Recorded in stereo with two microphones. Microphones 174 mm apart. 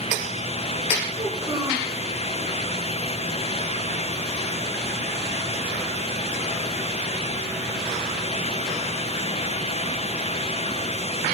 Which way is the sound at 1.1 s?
25° right (ahead or behind).